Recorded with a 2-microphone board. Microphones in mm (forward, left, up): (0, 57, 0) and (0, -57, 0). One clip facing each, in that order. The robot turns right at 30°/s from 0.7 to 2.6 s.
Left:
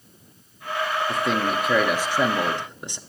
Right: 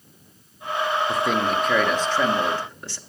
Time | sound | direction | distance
1.1 | a man speaking | 5° right (ahead or behind) | 0.7 m